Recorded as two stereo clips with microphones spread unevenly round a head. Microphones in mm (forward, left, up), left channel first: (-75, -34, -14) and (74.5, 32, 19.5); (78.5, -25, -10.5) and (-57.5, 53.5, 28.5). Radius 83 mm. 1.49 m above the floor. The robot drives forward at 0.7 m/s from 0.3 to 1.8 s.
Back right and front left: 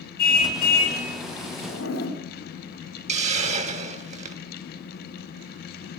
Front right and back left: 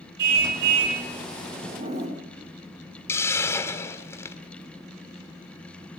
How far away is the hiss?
About 1.7 m.